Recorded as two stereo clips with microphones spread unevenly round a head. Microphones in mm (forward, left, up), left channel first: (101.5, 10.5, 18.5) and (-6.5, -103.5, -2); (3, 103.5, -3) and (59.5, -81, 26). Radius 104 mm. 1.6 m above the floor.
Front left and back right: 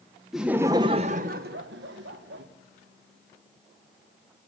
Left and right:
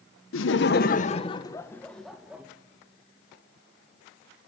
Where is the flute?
No flute in this recording.